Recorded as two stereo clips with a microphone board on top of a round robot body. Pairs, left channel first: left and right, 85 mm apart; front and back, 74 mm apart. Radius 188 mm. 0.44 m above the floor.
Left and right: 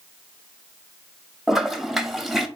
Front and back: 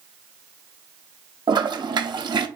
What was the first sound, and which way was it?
A toilet flushing, straight behind.